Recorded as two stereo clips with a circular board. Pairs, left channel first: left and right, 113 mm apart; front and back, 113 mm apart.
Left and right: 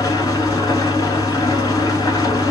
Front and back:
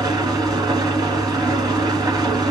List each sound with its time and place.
0.0 s an engine running: 135° left, 1.3 m